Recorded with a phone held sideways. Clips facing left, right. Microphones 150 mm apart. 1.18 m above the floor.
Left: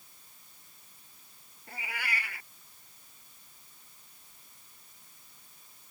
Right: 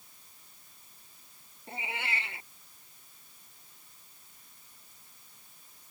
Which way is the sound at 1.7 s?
25° right (ahead or behind).